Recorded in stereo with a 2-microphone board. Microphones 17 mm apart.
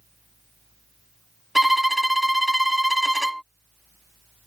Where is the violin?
15° right (ahead or behind).